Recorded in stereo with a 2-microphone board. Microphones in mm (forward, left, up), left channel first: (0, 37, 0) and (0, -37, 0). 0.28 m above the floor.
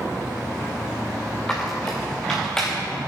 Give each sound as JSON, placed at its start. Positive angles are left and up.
{"t": 1.5, "sound": "a squeak", "side_deg": 10, "distance_m": 2.5}